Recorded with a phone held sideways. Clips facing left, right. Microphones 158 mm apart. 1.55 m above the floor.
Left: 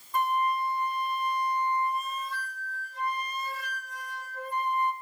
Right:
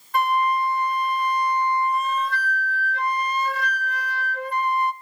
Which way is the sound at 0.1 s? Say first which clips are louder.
Right 6 dB; 70° right (ahead or behind).